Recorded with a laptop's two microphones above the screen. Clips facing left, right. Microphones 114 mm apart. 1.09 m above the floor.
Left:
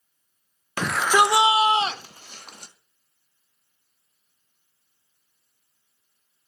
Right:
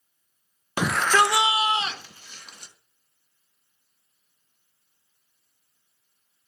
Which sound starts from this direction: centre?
A shout, at 0.8 s.